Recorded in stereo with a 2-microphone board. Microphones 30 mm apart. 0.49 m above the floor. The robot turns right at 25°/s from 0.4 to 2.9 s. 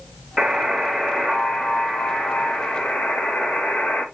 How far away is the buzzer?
About 1.0 m.